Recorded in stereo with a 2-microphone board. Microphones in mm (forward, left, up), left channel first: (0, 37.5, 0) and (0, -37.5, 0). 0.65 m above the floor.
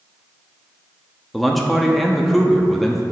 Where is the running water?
I don't hear running water.